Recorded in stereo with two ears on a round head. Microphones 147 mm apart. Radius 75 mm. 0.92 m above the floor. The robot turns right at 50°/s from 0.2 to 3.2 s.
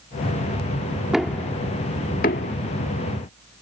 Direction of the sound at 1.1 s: 5° right (ahead or behind).